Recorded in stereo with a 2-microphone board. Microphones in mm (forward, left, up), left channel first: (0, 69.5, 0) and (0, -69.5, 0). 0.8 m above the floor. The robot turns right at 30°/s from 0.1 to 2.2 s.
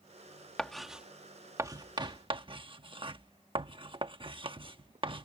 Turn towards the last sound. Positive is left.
turn(degrees=-40)  # may be behind; listen again after turning